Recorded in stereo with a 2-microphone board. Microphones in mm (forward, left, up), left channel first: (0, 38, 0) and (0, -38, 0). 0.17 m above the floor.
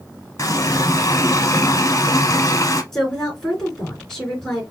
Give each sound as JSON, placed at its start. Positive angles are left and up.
{"t": 0.4, "sound": "a running tap", "side_deg": 45, "distance_m": 0.9}
{"t": 2.9, "sound": "a woman speaking", "side_deg": 10, "distance_m": 3.0}